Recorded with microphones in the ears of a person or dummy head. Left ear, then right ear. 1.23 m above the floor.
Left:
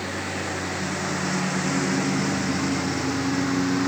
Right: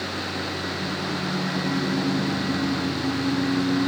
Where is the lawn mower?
85° left; by 3.9 s 80° left.